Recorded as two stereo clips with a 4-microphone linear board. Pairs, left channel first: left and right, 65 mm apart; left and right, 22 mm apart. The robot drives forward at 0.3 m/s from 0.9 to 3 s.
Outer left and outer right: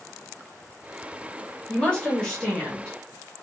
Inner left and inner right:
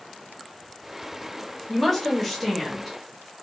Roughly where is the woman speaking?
Centre.